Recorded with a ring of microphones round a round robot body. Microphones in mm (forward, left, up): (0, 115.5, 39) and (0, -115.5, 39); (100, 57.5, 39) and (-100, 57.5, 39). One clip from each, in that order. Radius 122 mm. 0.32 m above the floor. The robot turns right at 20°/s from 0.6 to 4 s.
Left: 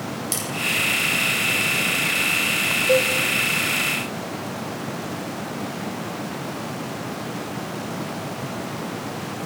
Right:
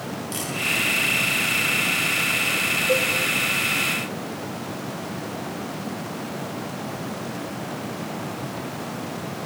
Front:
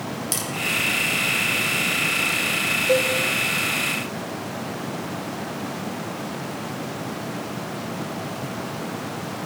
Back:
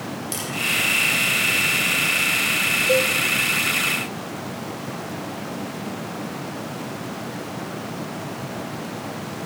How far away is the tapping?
About 7 m.